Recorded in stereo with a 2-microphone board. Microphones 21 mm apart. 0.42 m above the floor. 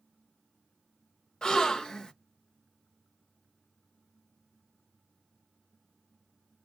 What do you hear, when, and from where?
1.4 s a gasp: 35° left (ahead or behind), 0.7 m